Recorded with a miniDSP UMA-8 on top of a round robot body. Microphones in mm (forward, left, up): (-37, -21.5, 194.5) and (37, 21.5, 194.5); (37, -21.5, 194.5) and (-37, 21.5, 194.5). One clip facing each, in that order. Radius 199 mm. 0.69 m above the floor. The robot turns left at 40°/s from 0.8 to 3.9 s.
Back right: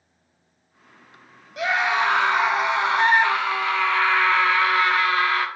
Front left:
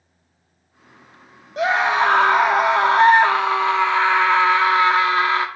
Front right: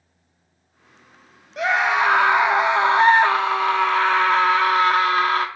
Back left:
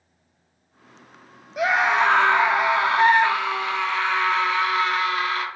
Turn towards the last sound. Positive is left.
turn(degrees=-25)